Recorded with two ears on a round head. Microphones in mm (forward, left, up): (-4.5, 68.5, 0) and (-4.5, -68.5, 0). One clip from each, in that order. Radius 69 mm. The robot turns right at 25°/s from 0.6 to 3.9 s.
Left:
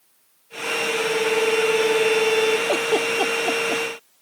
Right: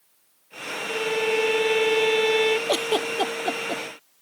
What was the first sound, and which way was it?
A violin, 130° right.